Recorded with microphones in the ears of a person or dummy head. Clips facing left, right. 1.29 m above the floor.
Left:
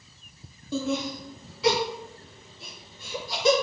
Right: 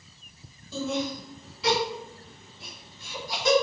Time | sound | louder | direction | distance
0.7 | laughter | left 1 dB | 50° left (ahead or behind) | 0.8 m